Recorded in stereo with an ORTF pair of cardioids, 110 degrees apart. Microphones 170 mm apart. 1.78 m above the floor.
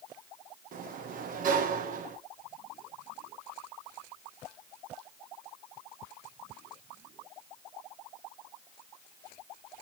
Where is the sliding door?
55° right, 1.4 m.